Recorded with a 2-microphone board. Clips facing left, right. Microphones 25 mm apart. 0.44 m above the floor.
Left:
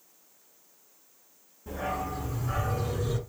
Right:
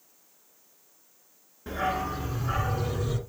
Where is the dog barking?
50° right (ahead or behind), 1.6 m; by 3.2 s 5° right (ahead or behind), 1.3 m.